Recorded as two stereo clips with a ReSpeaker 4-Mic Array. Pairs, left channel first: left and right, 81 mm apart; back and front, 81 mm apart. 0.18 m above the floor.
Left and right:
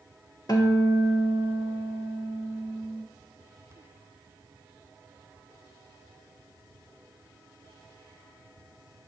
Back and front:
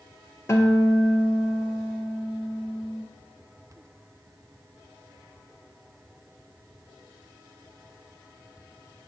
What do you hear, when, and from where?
0.5 s a guitar: 125° left, 0.6 m